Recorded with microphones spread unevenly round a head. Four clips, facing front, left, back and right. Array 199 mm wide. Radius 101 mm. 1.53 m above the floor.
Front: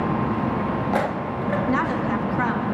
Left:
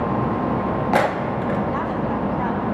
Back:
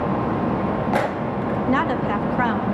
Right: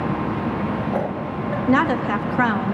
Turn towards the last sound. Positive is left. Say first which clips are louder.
# right 4 dB, back 4 dB
turn(degrees=-90)